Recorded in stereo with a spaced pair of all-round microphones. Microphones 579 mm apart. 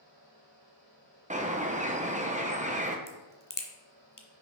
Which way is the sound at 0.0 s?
40° right (ahead or behind).